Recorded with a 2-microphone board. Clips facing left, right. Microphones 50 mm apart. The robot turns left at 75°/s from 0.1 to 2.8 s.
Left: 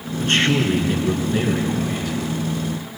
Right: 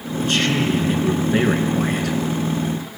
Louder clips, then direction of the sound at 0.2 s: Left 1 dB; 50° left.